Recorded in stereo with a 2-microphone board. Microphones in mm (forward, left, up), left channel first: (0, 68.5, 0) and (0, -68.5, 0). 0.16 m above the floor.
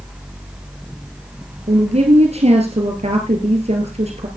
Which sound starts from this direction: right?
A woman speaking, at 1.7 s.